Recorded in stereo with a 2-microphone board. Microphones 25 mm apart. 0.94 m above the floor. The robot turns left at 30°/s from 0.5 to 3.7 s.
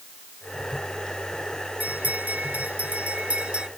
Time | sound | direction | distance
1.8 | a bell | 80° right | ?